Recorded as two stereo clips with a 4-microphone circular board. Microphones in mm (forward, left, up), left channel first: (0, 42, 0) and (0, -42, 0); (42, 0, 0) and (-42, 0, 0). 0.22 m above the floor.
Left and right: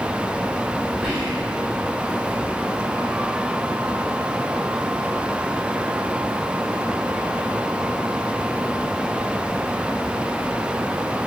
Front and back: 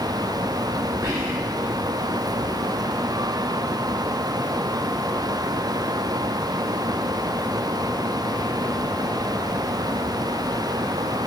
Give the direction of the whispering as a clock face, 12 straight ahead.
6 o'clock.